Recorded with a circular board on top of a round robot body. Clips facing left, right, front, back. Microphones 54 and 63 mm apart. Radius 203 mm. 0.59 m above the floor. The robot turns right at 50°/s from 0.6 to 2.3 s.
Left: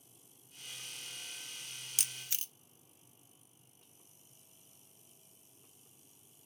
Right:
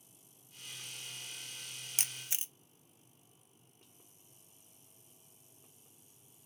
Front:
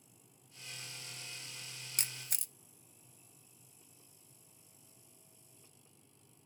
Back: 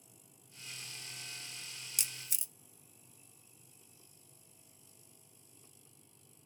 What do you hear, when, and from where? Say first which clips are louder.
2.0 s a camera shutter: right 2 dB, front 3 dB; 40° right, 0.6 m; by 2.5 s 25° right, 0.6 m